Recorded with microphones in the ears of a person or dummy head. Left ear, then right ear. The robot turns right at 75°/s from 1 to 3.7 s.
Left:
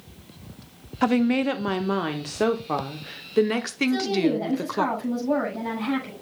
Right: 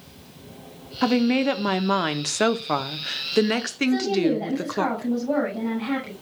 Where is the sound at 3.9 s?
Centre (ahead or behind), 6 m.